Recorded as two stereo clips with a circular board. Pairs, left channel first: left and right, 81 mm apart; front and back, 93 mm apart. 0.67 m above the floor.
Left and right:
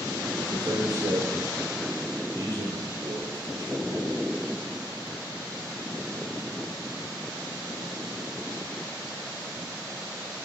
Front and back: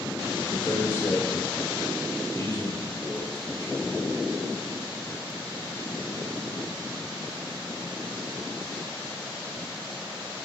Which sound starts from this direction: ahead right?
A man speaking, at 0.4 s.